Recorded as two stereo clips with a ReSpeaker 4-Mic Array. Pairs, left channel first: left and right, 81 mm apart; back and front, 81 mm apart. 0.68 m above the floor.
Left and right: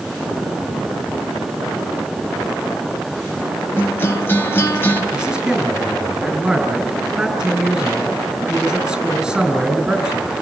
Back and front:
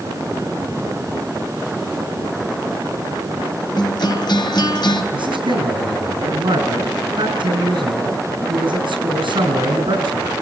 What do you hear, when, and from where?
3.8 s a guitar: 150° left, 3 m
5.1 s a man speaking: 10° right, 7.5 m